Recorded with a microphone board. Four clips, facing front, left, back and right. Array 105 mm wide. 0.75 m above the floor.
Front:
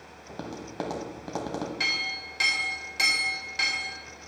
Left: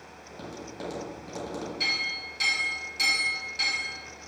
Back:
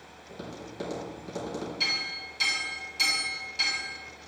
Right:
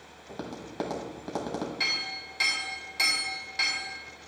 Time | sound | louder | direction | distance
0.3 | tapping | right 2 dB, front 3 dB | 35° right | 1.1 m
1.8 | a clink | left 2 dB, front 2 dB | 25° right | 2.5 m